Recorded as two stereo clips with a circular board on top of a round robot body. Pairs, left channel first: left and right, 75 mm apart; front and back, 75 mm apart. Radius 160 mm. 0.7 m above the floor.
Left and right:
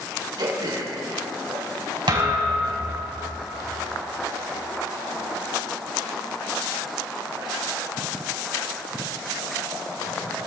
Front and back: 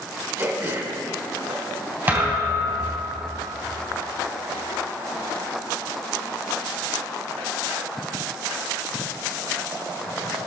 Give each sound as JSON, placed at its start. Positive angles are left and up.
{"t": 0.4, "sound": "throat clearing", "azimuth_deg": -120, "distance_m": 3.0}
{"t": 2.1, "sound": "a thud", "azimuth_deg": -115, "distance_m": 3.5}